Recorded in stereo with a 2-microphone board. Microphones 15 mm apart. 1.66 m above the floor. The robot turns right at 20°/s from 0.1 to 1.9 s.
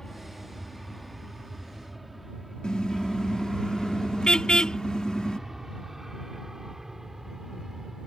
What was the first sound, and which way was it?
An aircraft, 35° left (ahead or behind).